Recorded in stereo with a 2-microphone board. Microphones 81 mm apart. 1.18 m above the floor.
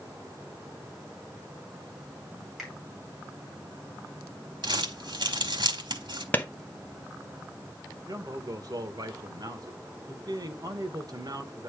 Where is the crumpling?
70° right (ahead or behind), 1.7 m.